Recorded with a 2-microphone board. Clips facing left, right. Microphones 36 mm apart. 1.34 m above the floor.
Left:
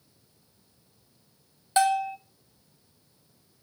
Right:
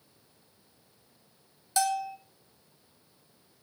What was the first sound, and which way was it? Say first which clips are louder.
A bell: left 5 dB; 35° left (ahead or behind).